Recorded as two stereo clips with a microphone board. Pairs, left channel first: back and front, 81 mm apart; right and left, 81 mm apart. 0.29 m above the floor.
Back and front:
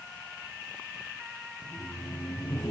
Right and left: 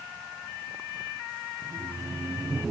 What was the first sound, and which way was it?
Laughter, 125° left.